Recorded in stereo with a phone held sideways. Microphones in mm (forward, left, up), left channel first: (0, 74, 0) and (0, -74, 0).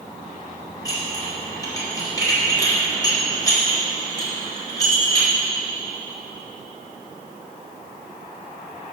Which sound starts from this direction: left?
Dishes clattering, at 0.8 s.